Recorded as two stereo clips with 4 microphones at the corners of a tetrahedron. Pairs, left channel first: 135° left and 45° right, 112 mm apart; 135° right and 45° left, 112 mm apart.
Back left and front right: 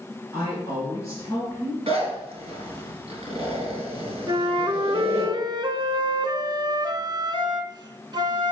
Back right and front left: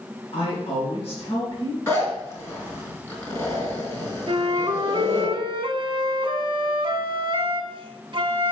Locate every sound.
0.3 s a woman speaking: 165° right, 4 m
1.9 s a zipper: 70° right, 2.5 m
4.3 s a flute: 5° left, 0.5 m